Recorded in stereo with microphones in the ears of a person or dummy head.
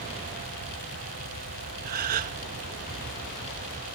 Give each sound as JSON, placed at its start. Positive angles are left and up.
{"t": 1.9, "sound": "a gasp", "side_deg": -40, "distance_m": 0.7}